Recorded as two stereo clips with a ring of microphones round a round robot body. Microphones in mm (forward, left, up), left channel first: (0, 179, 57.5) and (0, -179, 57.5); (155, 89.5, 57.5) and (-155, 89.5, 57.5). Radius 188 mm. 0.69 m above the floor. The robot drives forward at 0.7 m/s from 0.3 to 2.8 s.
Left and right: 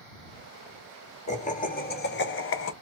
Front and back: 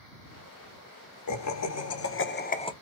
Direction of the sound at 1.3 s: 20° left.